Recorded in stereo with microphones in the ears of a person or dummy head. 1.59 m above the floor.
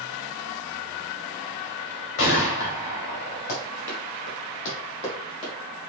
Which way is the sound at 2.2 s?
55° left (ahead or behind).